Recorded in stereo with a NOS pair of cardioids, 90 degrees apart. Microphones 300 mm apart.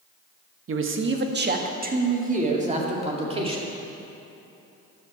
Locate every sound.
0.7 s a man speaking: 45° right, 1.3 m; by 3.7 s 20° right, 3 m